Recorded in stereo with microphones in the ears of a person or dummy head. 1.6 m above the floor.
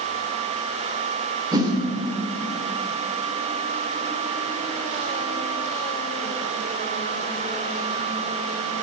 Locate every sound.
1.5 s a whoosh: 25° right (ahead or behind), 3 m